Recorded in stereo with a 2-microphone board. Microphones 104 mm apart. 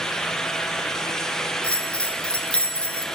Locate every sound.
1.6 s a bell: 10° left (ahead or behind), 1.2 m